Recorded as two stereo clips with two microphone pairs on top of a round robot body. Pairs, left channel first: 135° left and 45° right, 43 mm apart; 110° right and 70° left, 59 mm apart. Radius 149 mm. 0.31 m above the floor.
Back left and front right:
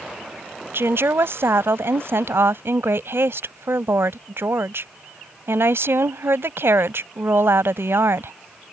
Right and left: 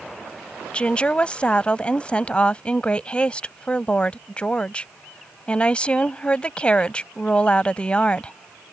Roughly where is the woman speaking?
Ahead right.